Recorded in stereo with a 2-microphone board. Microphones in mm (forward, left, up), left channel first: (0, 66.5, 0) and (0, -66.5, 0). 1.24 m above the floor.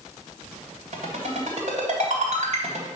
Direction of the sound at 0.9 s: 65° right (ahead or behind).